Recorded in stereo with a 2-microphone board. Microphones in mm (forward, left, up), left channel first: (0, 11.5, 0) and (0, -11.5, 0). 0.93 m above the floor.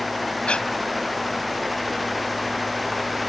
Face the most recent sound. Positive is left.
turn(degrees=50)  # may be behind; listen again after turning